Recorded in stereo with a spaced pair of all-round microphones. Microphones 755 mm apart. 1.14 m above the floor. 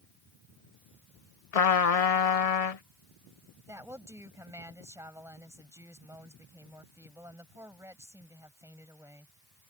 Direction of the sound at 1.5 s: 50° left (ahead or behind).